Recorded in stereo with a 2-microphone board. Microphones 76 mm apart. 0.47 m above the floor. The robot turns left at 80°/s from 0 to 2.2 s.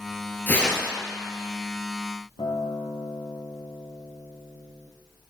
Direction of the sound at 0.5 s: 25° left.